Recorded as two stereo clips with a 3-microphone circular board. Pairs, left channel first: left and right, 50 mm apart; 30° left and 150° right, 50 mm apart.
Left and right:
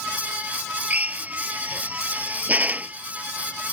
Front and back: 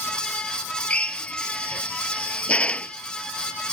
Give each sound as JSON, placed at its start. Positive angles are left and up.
{"t": 0.9, "sound": "a drill", "azimuth_deg": -35}